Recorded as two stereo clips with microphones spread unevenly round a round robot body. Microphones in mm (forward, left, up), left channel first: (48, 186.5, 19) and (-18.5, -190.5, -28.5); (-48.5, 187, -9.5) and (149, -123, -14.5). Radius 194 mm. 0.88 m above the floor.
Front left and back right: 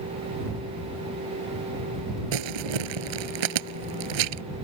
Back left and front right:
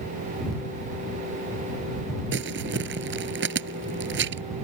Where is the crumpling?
120° right.